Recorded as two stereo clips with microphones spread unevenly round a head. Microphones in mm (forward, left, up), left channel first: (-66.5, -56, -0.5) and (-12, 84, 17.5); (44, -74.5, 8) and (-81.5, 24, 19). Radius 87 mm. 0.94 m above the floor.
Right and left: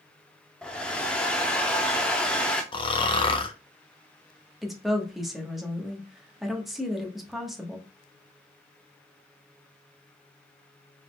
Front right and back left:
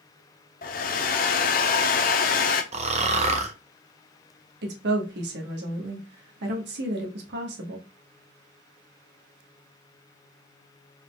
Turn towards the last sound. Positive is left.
turn(degrees=160)